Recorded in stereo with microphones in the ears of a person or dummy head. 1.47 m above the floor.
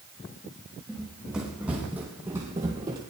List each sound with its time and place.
0.9 s running footsteps: centre (ahead or behind), 5.5 m; by 3.0 s 25° right (ahead or behind), 3 m